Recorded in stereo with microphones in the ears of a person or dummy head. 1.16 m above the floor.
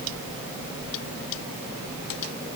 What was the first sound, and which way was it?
Only background noise.